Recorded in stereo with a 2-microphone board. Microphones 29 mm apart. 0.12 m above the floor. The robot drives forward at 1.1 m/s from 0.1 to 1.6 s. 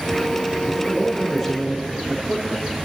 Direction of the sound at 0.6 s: 15° right (ahead or behind).